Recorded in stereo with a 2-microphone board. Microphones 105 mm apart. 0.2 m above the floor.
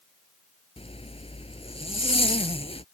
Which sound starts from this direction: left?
A zipper, at 0.8 s.